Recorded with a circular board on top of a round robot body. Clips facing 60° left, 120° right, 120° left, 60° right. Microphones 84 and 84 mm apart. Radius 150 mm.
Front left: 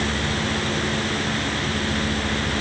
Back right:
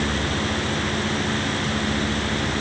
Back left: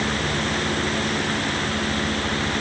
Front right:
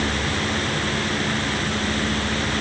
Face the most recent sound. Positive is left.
No sound to turn to.